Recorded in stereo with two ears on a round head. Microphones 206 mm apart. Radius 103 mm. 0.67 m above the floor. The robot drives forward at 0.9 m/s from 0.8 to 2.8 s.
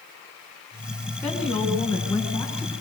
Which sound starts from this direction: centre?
A woman speaking, at 1.2 s.